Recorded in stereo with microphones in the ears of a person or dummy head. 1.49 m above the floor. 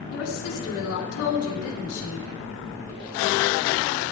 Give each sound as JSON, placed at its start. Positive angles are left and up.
{"t": 0.1, "sound": "a woman speaking", "side_deg": 80, "distance_m": 3.5}